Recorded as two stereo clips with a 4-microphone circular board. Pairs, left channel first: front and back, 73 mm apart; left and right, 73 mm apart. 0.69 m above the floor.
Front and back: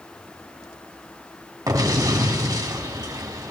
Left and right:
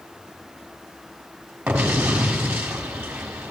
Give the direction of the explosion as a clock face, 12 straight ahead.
5 o'clock.